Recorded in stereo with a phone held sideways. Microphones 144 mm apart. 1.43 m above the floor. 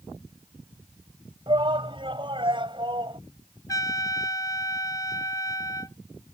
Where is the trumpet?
25° left (ahead or behind).